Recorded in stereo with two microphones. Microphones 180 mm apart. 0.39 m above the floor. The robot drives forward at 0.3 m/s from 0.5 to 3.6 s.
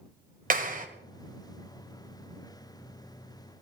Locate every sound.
0.5 s a clap: 50° right (ahead or behind), 1.4 m